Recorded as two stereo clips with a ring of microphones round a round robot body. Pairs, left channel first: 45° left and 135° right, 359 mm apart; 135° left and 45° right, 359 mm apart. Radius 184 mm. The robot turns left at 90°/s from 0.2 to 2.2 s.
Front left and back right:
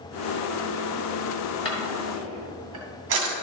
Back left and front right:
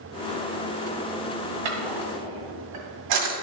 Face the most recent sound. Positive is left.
turn(degrees=-80)